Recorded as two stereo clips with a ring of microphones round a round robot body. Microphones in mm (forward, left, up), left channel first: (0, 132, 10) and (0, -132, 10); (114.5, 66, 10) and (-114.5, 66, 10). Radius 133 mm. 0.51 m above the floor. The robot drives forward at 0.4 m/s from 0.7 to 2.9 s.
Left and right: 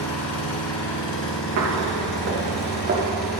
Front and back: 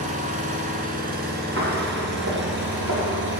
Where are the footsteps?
125° right, 4.5 m; by 3.0 s 145° right, 4 m.